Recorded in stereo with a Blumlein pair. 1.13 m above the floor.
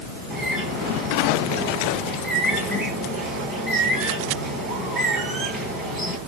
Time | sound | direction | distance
0.3 | a bird | 5° right | 9 m